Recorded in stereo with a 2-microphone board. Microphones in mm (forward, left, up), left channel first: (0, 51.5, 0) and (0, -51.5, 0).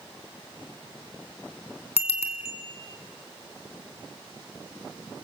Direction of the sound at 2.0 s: 75° left (ahead or behind).